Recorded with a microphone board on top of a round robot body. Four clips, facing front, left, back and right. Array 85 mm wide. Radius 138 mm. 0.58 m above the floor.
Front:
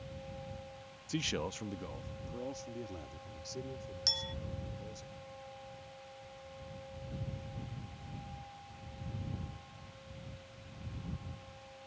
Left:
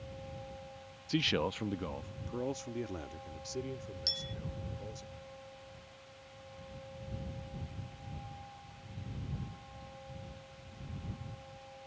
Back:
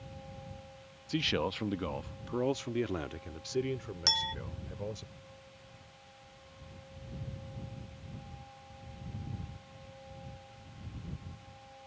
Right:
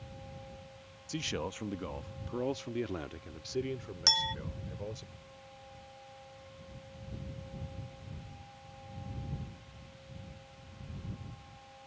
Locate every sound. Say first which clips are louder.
1.1 s a man speaking: left 5 dB, back 5 dB; 120° left; by 5.1 s 150° right
4.1 s a clink: right 10 dB, back 11 dB; 125° right